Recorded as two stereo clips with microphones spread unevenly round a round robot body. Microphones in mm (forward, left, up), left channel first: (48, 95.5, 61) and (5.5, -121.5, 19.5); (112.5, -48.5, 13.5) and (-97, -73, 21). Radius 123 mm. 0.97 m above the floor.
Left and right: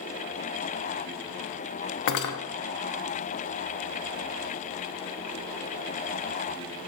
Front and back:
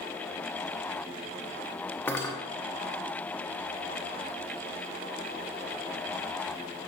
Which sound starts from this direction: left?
Cutlery clinking, at 2.1 s.